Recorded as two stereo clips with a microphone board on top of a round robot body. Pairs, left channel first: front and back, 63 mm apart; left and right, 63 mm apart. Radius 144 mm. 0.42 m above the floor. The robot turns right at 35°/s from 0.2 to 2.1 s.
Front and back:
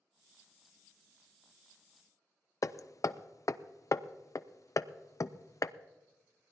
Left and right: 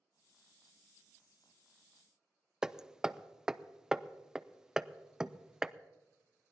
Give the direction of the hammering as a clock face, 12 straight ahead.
12 o'clock.